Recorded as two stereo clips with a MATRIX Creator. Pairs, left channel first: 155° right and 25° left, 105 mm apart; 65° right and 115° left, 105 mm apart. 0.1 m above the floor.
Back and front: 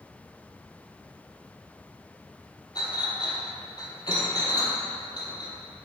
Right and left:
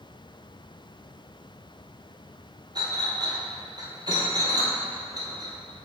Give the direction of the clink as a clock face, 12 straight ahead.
7 o'clock.